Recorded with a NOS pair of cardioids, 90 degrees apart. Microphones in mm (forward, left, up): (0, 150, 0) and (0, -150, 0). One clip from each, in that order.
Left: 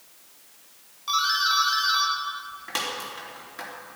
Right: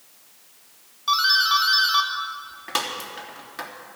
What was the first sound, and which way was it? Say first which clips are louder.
A doorbell: right 4 dB; 25° right.